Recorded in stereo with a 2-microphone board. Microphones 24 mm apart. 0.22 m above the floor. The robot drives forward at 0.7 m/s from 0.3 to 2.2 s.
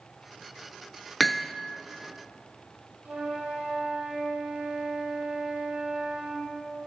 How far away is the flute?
About 9 m.